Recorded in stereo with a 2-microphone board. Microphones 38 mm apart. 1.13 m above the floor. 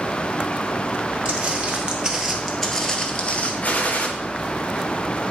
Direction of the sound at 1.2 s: 35° right (ahead or behind).